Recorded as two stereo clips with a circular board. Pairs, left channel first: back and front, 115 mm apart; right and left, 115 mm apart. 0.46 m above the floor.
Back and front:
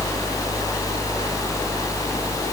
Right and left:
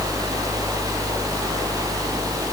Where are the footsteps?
No footsteps in this recording.